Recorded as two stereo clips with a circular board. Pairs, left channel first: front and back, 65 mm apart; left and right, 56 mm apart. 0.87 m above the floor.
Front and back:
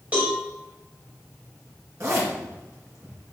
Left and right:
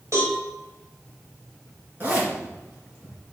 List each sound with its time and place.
0.1 s a cowbell: 110° right, 2.5 m
2.0 s a zipper: 140° right, 2.5 m